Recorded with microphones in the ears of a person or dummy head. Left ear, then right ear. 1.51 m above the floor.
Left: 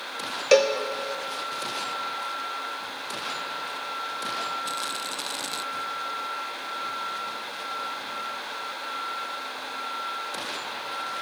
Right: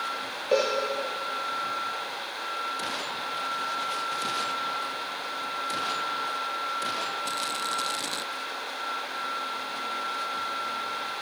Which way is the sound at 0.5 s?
50° left (ahead or behind).